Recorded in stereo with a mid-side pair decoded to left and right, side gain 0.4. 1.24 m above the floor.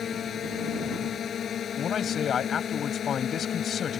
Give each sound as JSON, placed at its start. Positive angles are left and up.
{"t": 0.0, "sound": "a drone", "azimuth_deg": 55}
{"t": 1.8, "sound": "a man speaking", "azimuth_deg": 55}